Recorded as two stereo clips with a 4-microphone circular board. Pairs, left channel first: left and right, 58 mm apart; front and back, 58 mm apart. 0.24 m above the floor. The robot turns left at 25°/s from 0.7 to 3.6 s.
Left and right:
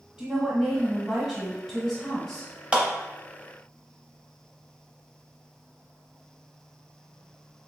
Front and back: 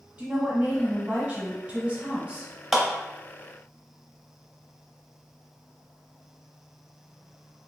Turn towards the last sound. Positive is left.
turn(degrees=-120)